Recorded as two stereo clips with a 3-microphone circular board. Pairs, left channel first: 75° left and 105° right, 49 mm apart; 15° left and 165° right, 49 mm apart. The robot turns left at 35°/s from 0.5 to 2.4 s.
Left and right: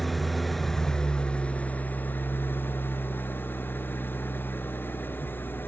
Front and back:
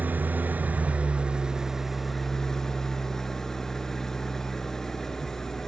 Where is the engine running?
160° left, 0.9 m; by 5.7 s 95° left, 0.9 m.